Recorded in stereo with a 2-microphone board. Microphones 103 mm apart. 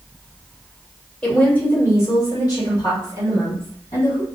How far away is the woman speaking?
About 1.4 m.